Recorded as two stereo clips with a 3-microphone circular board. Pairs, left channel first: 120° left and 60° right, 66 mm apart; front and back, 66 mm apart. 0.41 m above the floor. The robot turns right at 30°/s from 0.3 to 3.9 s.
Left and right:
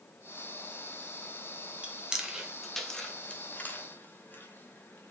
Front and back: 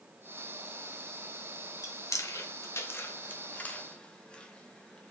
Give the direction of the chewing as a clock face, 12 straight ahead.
12 o'clock.